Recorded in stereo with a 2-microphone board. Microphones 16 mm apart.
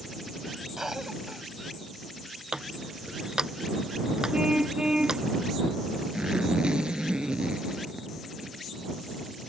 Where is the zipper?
75° right (ahead or behind).